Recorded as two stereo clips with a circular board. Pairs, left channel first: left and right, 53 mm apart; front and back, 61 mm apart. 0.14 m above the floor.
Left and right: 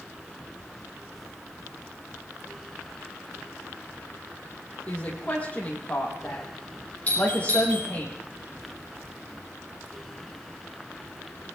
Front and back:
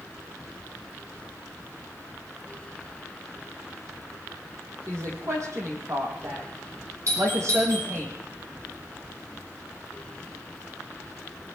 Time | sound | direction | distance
4.9 | a woman speaking | 150° left | 5 m
7.1 | a doorbell | 150° left | 7 m